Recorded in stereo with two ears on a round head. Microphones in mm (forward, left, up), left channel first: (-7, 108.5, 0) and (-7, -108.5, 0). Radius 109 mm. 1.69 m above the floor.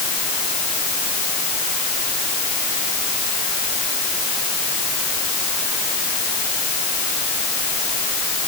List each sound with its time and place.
Only background noise.